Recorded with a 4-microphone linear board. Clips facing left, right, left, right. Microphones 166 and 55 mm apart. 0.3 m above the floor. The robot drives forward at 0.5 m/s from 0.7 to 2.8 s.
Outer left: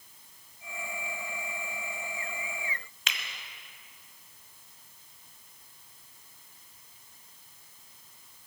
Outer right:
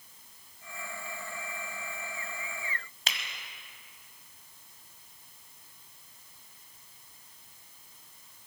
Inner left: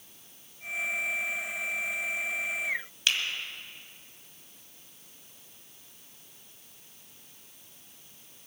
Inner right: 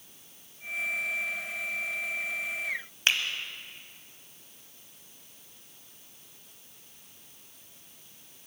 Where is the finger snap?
40° right (ahead or behind), 1.4 m.